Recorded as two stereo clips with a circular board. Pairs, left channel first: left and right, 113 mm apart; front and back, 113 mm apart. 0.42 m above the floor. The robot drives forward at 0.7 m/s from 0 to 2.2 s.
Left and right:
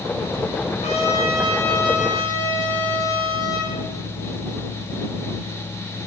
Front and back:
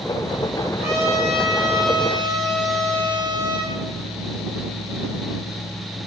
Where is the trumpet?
120° left, 8 m; by 3.7 s 125° left, 8.5 m.